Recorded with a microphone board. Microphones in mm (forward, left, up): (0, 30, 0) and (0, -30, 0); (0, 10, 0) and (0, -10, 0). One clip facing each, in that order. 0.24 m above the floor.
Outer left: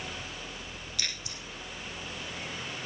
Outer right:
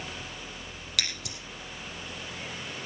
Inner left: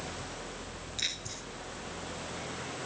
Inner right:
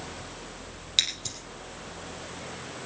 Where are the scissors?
80° right, 4.5 m.